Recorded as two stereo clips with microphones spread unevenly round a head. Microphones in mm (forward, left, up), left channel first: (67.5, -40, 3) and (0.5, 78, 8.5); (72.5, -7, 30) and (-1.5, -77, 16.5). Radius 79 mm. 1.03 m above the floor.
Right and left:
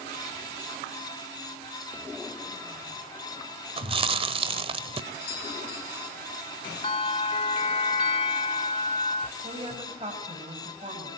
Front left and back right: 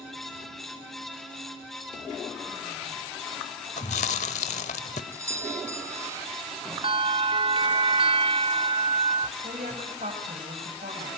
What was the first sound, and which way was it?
Chewing, 75° left.